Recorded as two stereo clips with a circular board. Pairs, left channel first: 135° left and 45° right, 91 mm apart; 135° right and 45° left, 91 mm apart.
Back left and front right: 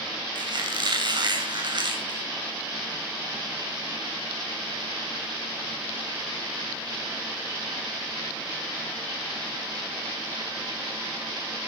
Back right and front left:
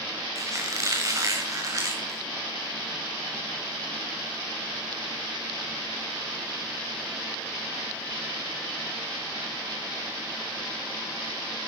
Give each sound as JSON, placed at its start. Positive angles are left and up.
{"t": 0.3, "sound": "a squeak", "azimuth_deg": -10, "distance_m": 4.0}